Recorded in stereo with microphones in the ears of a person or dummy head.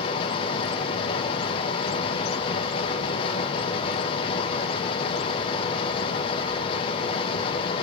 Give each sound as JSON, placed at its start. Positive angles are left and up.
{"t": 0.0, "sound": "a fan", "side_deg": 35, "distance_m": 1.1}